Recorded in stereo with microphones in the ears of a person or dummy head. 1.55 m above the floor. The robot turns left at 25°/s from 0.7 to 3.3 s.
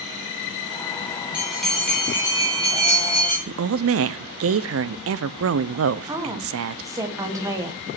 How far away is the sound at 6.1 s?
About 1.3 m.